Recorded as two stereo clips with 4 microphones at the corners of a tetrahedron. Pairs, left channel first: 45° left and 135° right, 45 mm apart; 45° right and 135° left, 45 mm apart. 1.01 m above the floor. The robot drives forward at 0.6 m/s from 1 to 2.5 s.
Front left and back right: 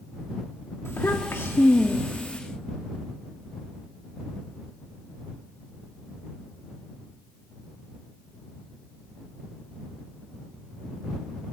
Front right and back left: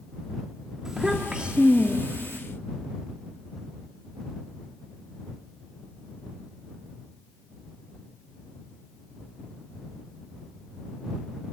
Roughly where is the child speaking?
Ahead left.